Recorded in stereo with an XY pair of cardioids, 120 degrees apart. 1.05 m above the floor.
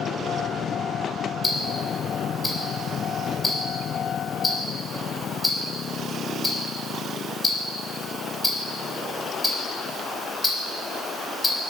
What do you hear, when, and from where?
1.4 s ticking: 15° left, 5 m